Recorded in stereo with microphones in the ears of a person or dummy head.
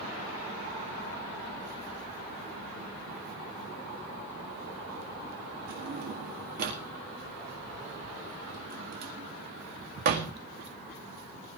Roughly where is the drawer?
Right.